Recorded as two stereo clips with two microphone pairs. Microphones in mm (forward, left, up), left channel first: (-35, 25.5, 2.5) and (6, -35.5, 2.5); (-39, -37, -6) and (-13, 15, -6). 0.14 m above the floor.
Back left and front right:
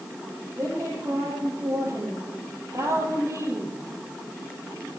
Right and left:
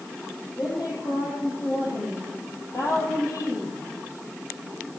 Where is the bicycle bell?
I don't hear a bicycle bell.